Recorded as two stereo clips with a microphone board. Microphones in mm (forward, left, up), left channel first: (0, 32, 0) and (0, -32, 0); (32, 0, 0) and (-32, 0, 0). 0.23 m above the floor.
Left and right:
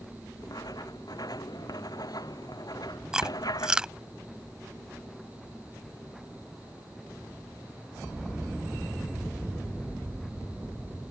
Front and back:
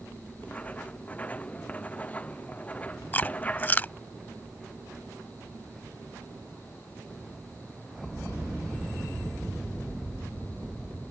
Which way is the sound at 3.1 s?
25° right.